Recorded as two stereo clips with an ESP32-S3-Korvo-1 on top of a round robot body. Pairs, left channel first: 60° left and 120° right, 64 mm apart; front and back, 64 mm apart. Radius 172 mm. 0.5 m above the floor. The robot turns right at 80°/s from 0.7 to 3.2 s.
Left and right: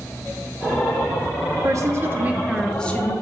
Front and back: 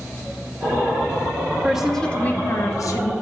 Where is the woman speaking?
110° right, 1.4 m; by 3.1 s 10° left, 1.4 m.